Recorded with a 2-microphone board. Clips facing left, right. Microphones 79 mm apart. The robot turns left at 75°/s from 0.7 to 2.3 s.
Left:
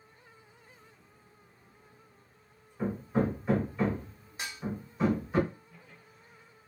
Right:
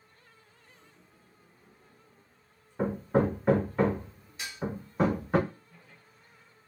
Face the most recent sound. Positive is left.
turn(degrees=40)  # may be behind; listen again after turning